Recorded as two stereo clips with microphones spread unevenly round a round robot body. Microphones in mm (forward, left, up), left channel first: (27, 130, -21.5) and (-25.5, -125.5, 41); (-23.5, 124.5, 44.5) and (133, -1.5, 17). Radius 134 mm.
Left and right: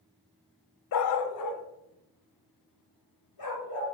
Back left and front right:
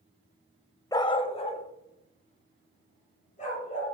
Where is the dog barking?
65° left, 0.5 m; by 3.9 s 90° left, 3.5 m.